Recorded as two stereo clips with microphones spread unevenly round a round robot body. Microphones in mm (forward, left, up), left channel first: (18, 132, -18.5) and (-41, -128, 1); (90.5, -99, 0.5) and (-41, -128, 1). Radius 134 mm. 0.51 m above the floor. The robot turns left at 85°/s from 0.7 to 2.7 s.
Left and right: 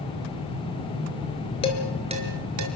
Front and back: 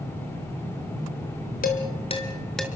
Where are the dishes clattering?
5° left, 4.5 m; by 2.7 s 80° right, 4.5 m.